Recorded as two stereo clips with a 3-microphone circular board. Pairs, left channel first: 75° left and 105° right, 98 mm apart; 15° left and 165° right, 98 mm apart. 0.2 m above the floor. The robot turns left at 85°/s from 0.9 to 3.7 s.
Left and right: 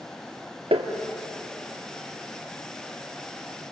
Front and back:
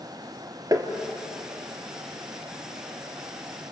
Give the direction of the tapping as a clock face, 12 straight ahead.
4 o'clock.